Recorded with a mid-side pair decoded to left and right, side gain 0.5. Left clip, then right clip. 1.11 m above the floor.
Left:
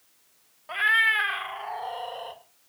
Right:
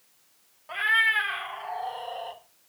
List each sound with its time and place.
0.7 s a cat meowing: 20° left, 1.2 m